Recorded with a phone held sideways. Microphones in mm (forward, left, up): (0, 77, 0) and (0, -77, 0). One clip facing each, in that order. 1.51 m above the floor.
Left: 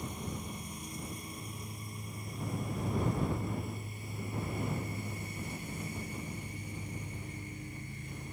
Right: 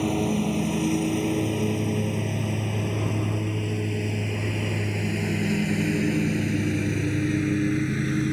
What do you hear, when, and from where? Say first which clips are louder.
0.0 s a lawn mower: right 18 dB; 80° right